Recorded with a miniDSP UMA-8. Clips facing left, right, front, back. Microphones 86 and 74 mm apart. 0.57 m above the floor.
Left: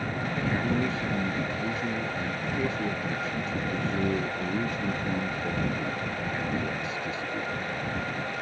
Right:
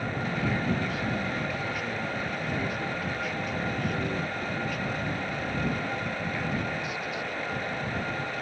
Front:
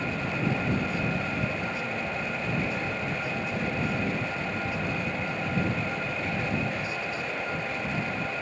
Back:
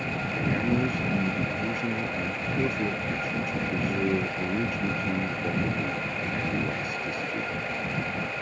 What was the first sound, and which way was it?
A man speaking, 150° left.